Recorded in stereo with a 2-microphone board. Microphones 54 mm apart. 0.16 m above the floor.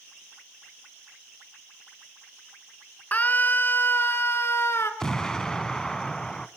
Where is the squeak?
I don't hear a squeak.